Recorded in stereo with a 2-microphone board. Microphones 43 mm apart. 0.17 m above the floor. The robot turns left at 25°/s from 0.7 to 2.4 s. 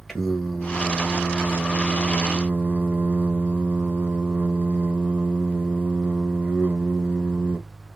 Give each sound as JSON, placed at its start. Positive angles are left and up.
{"t": 0.1, "sound": "singing", "azimuth_deg": 10, "distance_m": 0.9}